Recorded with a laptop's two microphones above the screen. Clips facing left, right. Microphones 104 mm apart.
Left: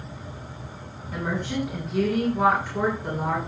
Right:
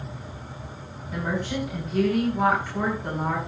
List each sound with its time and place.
1.1 s a woman speaking: 5° right (ahead or behind), 9.5 m